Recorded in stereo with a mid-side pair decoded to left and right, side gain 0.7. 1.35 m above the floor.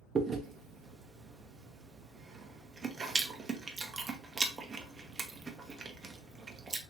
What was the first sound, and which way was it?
Chewing, 25° right.